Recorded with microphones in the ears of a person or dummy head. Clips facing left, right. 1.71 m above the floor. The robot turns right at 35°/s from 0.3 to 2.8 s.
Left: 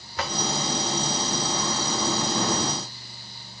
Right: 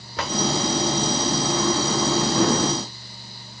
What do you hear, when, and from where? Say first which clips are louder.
0.2 s a drawer: right 3 dB; 70° right (ahead or behind), 3.5 m; by 0.4 s 75° right (ahead or behind), 3.5 m